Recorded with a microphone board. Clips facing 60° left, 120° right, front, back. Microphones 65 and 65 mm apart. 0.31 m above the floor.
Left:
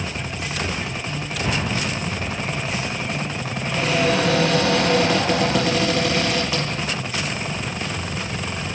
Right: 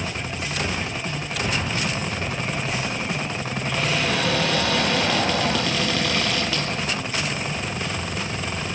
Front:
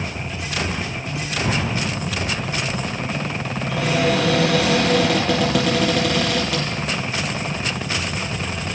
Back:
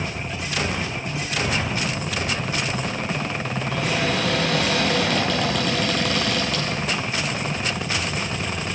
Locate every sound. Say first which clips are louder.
1.4 s an explosion: left 2 dB, front 4 dB; 25° right, 9 m
3.7 s a cupboard door: left 5 dB, front 5 dB; 10° right, 8 m